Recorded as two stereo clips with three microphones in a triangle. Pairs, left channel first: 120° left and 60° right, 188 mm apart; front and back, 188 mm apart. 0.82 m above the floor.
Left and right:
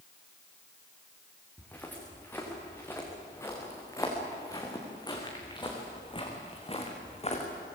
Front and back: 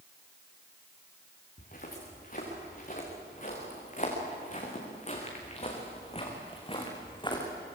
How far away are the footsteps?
About 6.5 m.